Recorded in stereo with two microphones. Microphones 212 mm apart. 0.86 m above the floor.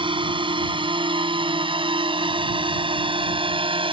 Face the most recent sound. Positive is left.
turn(degrees=-25)  # may be behind; listen again after turning